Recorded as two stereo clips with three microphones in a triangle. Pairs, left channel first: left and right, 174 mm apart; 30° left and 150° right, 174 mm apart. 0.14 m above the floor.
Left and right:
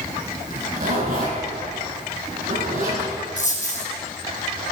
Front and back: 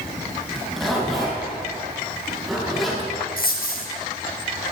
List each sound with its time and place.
0.5 s a zipper: 60° right, 5 m
3.4 s a dropped coin: 50° left, 2.5 m